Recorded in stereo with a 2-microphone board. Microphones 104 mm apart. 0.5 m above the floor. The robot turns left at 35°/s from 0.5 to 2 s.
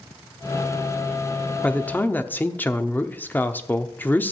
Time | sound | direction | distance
1.6 | a man speaking | 15° left (ahead or behind) | 0.8 m